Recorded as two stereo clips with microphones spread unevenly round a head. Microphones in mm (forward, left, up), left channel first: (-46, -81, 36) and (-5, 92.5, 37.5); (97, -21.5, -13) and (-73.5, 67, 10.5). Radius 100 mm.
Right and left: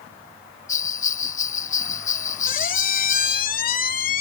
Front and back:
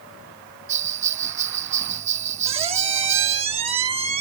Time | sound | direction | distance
0.7 | a bell | 150° right | ?
2.5 | a squeak | 145° right | ?